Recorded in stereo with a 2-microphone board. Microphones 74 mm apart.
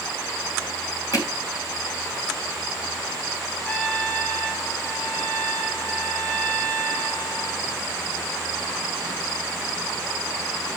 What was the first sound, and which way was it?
Hammering, 55° left (ahead or behind).